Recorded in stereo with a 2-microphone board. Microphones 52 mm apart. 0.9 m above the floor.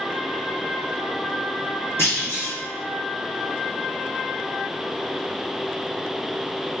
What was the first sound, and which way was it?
A clunk, 50° left (ahead or behind).